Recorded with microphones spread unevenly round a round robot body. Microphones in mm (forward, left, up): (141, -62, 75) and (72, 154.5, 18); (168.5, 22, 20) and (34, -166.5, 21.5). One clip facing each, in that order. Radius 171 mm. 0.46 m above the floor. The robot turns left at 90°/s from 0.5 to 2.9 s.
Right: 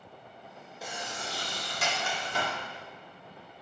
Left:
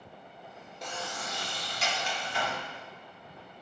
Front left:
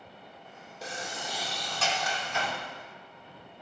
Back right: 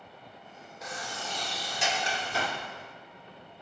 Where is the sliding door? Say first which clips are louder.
Left 1 dB, front left 1 dB; 30° left, 1.4 m; by 2.6 s 130° right, 1.4 m.